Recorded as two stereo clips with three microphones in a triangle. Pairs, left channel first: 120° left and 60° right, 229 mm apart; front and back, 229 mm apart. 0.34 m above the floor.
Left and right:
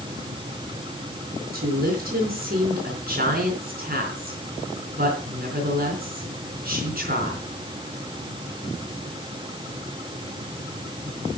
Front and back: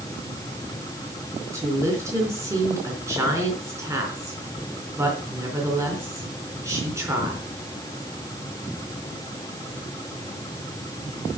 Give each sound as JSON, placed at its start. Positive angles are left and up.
{"t": 1.5, "sound": "a woman speaking", "azimuth_deg": -105, "distance_m": 4.0}